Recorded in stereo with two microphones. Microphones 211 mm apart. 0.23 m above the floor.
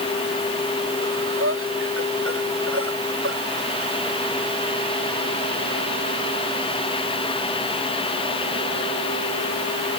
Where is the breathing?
80° right.